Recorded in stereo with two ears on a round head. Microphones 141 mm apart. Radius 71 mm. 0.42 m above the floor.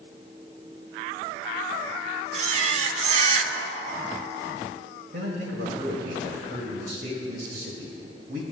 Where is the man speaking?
60° right (ahead or behind), 1.8 m.